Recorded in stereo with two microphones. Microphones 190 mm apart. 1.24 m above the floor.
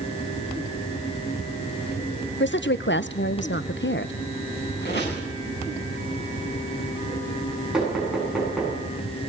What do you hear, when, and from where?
2.4 s a woman speaking: 75° left (ahead or behind), 0.6 m
4.8 s a squeak: 60° left (ahead or behind), 8.5 m
7.7 s knocking: 5° right (ahead or behind), 9 m